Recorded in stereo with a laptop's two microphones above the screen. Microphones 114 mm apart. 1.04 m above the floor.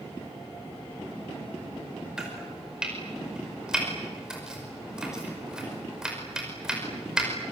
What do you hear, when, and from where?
2.2 s chopping: 5° right (ahead or behind), 5 m